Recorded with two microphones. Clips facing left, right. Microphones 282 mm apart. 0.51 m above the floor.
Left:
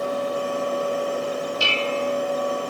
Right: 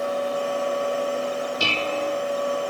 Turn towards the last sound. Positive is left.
turn(degrees=-45)  # may be behind; listen again after turning